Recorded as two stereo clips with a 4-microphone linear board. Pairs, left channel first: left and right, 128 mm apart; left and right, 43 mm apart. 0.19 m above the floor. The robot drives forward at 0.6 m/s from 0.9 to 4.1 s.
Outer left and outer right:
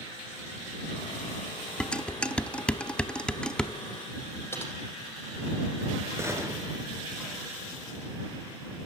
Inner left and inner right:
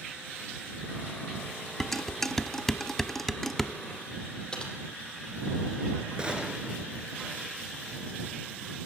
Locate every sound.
1.8 s dishes clattering: 10° left (ahead or behind), 0.9 m; by 3.7 s 5° left (ahead or behind), 1.1 m
4.5 s typing on a keyboard: 20° left (ahead or behind), 5.5 m
6.2 s a gunshot: 20° right (ahead or behind), 3.5 m